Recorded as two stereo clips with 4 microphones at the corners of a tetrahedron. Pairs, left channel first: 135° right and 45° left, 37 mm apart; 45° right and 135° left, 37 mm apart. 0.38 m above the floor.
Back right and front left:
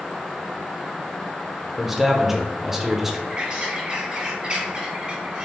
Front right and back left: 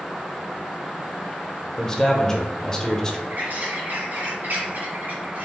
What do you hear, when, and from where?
1.8 s a man speaking: 20° right, 0.8 m
3.3 s a bird: 105° left, 1.8 m